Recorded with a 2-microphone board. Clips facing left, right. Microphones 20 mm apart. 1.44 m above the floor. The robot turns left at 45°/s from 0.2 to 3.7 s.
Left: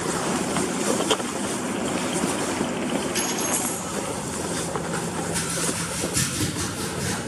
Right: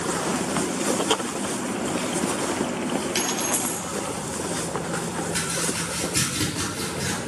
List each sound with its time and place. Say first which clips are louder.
3.1 s a dropped coin: even; 40° right (ahead or behind), 4 m; by 3.9 s 60° right (ahead or behind), 4 m
5.3 s chopping: even; 45° right (ahead or behind), 9 m